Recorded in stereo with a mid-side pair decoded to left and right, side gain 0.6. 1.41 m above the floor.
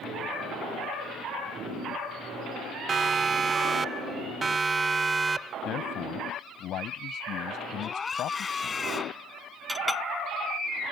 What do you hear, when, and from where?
2.9 s a siren: 30° right; by 5.5 s 20° right
5.7 s a man speaking: 55° left
7.8 s a scream: 25° left
9.7 s a clink: straight ahead